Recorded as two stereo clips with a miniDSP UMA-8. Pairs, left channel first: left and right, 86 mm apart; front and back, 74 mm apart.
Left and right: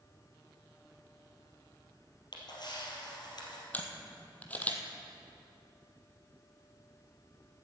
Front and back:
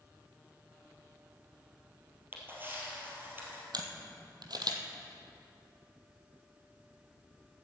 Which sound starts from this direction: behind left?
A camera shutter, at 2.3 s.